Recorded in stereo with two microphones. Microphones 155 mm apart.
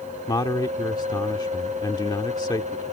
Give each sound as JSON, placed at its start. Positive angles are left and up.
{"t": 0.3, "sound": "a man speaking", "side_deg": 25}